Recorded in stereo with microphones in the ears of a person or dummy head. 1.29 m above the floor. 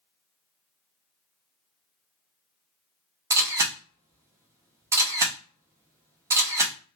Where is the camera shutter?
20° right (ahead or behind), 0.5 m.